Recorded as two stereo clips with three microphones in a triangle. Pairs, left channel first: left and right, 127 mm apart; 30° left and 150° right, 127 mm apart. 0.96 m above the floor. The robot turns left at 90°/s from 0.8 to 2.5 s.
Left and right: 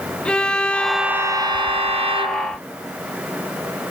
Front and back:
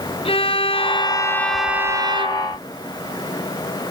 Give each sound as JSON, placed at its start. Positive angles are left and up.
{"t": 0.2, "sound": "a violin", "azimuth_deg": 10, "distance_m": 0.6}